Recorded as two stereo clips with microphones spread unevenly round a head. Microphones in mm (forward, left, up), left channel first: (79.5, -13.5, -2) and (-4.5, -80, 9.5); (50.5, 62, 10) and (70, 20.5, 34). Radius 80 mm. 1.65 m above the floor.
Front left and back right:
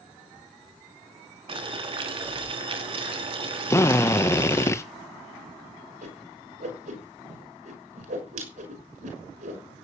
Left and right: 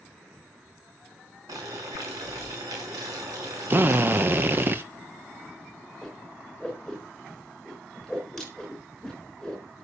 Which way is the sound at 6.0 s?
150° right.